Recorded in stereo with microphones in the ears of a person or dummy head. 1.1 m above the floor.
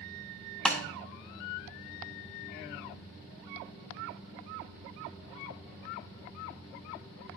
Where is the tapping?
Centre (ahead or behind), 0.9 m.